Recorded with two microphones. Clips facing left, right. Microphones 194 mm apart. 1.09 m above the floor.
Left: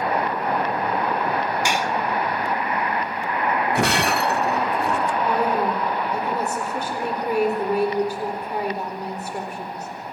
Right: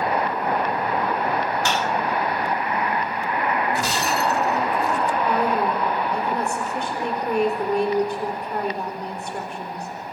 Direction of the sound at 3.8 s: 65° left (ahead or behind).